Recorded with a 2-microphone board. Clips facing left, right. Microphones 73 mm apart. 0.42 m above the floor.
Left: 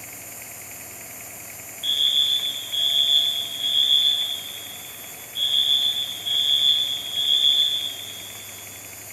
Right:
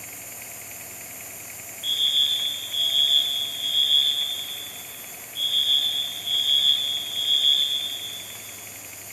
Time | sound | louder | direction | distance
1.8 | a fire alarm | left 1 dB | 55° left (ahead or behind) | 4 m